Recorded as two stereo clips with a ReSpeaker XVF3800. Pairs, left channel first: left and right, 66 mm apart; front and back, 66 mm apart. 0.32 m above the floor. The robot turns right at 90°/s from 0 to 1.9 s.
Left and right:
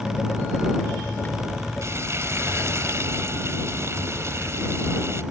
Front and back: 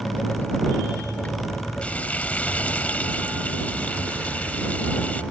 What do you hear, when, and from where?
1.8 s frying: 70° right; by 5.2 s 60° right